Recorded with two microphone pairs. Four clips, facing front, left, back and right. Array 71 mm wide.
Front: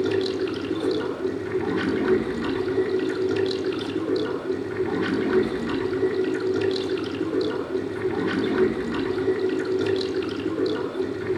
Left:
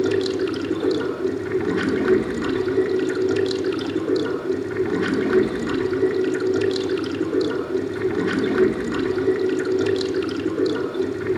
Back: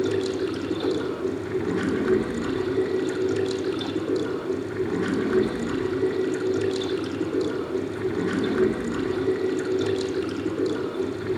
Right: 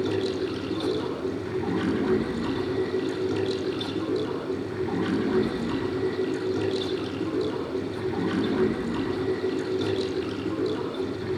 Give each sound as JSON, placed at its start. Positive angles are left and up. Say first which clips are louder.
{"t": 0.0, "sound": "running water", "louder": "left 6 dB, front 1 dB", "azimuth_deg": 85, "distance_m": 4.0}